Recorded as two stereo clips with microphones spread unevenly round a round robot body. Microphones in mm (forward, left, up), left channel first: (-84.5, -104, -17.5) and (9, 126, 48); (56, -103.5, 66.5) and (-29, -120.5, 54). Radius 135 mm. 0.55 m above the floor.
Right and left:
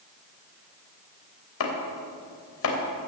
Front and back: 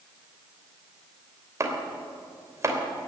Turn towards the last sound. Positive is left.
turn(degrees=-120)